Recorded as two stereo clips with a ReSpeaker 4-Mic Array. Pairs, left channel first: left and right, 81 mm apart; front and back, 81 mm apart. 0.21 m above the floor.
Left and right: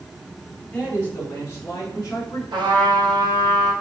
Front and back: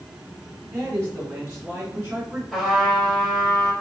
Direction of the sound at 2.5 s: 85° right.